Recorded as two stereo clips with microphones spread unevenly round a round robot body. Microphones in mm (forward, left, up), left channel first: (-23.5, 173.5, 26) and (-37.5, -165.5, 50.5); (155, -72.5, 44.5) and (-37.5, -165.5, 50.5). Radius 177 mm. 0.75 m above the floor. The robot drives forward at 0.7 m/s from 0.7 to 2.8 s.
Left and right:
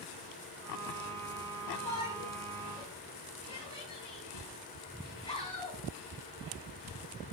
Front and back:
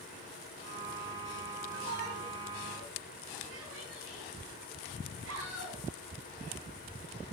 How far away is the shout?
About 7 m.